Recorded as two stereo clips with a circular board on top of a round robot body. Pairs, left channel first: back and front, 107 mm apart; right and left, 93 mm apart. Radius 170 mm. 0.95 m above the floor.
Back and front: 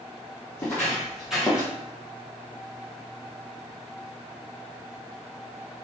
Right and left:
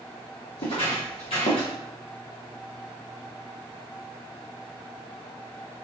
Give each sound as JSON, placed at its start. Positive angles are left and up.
{"t": 0.6, "sound": "footsteps", "azimuth_deg": -110, "distance_m": 1.9}